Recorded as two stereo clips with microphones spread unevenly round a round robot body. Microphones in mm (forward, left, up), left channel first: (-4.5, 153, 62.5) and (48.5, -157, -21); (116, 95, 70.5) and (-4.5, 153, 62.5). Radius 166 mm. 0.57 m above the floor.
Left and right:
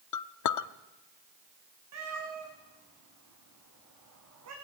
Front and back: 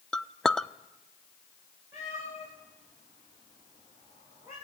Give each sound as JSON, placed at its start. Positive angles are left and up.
{"t": 0.1, "sound": "a clink", "azimuth_deg": 65, "distance_m": 0.8}
{"t": 1.9, "sound": "a cat meowing", "azimuth_deg": -125, "distance_m": 7.5}